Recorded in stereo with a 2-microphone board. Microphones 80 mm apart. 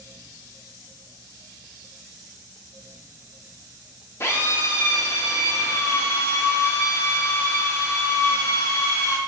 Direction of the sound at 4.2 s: 35° left (ahead or behind).